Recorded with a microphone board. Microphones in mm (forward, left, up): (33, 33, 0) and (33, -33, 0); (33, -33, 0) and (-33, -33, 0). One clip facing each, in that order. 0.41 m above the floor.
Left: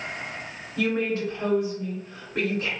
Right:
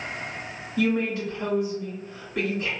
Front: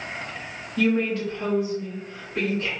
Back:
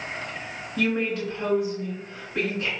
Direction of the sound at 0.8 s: 95° left.